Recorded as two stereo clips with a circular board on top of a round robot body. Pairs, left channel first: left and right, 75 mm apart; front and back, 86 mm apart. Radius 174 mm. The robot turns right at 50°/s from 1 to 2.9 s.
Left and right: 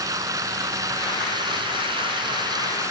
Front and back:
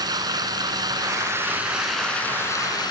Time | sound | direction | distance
0.0 | running water | 135° right | ?